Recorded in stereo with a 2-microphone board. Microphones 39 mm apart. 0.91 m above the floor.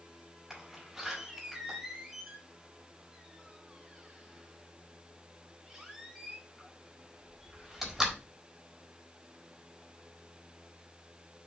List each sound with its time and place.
0.5 s a door slam: 10° right (ahead or behind), 3.5 m